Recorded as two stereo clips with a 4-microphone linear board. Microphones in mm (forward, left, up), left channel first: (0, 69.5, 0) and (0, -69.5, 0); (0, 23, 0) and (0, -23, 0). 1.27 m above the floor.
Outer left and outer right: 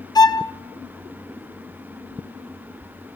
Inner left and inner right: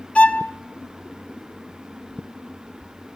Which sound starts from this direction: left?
A violin, at 0.1 s.